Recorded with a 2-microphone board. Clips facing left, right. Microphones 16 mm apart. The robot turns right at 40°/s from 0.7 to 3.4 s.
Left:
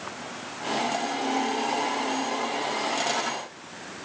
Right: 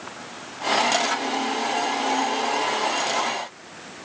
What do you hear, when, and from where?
Only background noise.